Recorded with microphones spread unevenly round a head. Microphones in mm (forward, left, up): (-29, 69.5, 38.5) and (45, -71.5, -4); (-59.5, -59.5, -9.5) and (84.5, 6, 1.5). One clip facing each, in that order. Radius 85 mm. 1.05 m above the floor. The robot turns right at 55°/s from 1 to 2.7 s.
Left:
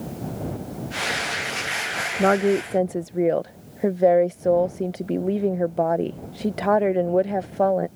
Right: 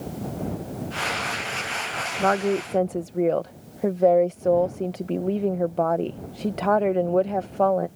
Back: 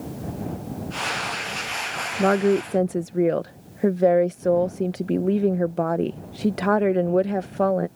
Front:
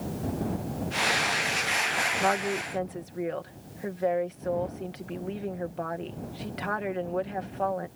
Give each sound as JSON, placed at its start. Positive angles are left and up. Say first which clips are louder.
{"t": 2.2, "sound": "a woman speaking", "louder": "left 4 dB, back 10 dB", "azimuth_deg": 180}